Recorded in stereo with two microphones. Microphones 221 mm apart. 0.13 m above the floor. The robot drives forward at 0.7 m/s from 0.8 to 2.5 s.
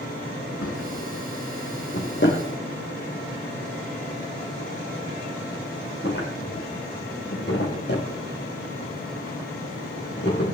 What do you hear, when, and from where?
0.6 s a drawer: 70° left (ahead or behind), 2 m; by 10.6 s 50° left (ahead or behind), 2.5 m